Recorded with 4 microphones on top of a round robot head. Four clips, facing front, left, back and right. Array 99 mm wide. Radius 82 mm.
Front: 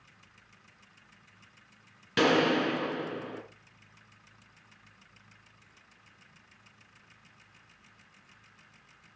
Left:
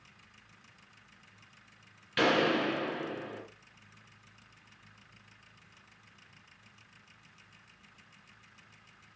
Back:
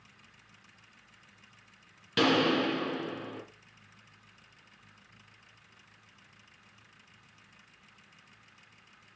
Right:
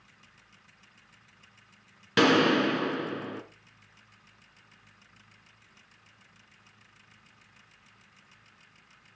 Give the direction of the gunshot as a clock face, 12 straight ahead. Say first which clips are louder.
Right 5 dB, front 1 dB; 3 o'clock.